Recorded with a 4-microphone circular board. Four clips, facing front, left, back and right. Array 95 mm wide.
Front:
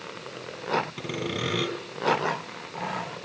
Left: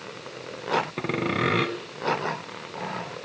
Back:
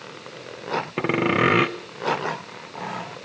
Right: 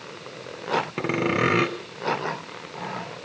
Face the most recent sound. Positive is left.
turn(degrees=-170)